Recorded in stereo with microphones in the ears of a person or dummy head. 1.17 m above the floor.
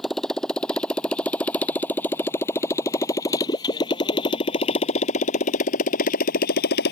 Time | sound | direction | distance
0.0 | a motorcycle | 5° left (ahead or behind) | ?